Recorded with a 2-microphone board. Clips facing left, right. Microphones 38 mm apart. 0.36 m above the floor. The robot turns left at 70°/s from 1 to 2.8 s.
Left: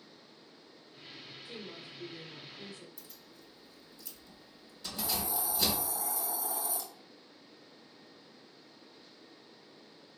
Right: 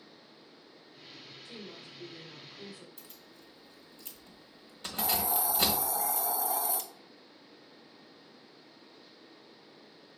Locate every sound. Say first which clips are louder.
1.4 s a woman speaking: left 1 dB; 25° left (ahead or behind), 1.1 m; by 2.9 s 10° right (ahead or behind), 1.1 m
3.0 s keys jangling: right 1 dB; 55° right (ahead or behind), 1.2 m
5.0 s a hiss: right 5 dB; 70° right (ahead or behind), 0.5 m